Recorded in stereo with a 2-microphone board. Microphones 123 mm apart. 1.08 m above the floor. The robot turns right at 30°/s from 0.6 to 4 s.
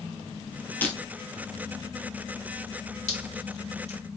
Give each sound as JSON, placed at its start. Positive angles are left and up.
{"t": 0.8, "sound": "breaking glass", "side_deg": 15, "distance_m": 2.5}
{"t": 3.1, "sound": "dripping", "side_deg": 85, "distance_m": 3.0}